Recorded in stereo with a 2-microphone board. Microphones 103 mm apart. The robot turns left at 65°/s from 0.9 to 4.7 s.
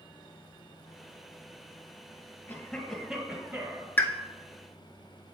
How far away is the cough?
About 1.6 m.